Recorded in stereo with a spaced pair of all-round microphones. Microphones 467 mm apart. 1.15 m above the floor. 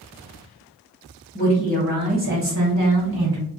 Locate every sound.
1.4 s a woman speaking: 20° left (ahead or behind), 0.7 m; by 3.4 s 55° right (ahead or behind), 1.2 m